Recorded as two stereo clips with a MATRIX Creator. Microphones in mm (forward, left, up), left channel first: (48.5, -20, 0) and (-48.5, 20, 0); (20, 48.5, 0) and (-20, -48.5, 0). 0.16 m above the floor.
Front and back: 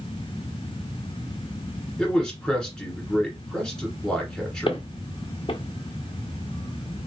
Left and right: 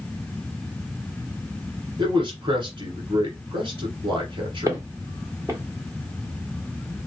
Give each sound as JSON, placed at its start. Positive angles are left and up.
{"t": 2.0, "sound": "a man speaking", "azimuth_deg": -105, "distance_m": 1.7}
{"t": 4.7, "sound": "footsteps", "azimuth_deg": -55, "distance_m": 1.3}